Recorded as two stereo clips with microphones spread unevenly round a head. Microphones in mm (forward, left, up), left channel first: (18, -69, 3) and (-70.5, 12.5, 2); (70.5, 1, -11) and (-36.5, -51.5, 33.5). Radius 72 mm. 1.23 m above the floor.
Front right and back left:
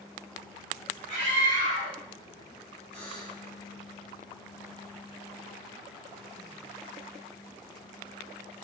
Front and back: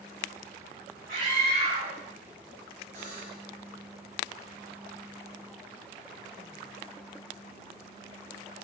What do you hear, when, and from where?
1.1 s a scream: 175° right, 7.5 m
2.9 s a buzzer: 170° left, 8.5 m